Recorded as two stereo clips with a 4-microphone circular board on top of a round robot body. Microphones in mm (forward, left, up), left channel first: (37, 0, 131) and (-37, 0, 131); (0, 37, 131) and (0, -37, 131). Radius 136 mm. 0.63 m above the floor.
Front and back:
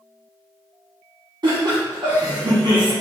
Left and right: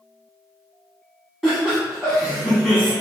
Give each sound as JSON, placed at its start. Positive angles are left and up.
{"t": 1.4, "sound": "laughter", "azimuth_deg": 175, "distance_m": 1.5}